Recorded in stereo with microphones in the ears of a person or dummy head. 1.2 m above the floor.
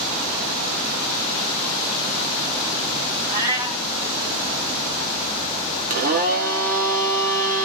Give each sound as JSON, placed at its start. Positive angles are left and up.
{"t": 3.3, "sound": "a cat meowing", "side_deg": -15, "distance_m": 0.7}
{"t": 5.9, "sound": "a blender", "side_deg": -45, "distance_m": 0.6}